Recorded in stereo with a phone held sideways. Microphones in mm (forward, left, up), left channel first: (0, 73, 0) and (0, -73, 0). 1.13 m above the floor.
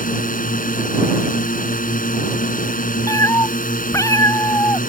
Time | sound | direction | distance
0.0 | a drone | 75° left (ahead or behind) | ?
3.1 | a cat meowing | 20° left (ahead or behind) | ?